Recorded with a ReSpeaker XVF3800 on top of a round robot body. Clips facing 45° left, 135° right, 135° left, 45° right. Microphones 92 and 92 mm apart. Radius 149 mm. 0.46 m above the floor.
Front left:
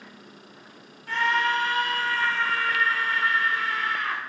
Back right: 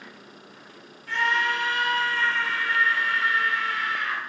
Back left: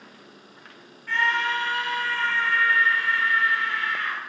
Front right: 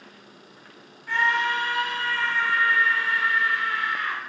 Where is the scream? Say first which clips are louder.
Front left 1 dB, front right 1 dB; 25° left, 1.1 m.